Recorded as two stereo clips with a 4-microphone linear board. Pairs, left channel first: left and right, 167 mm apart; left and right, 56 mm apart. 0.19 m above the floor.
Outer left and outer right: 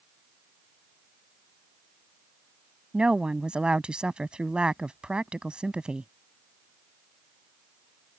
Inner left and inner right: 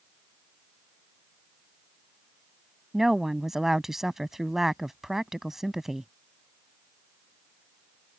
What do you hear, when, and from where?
2.9 s a woman speaking: 5° right (ahead or behind)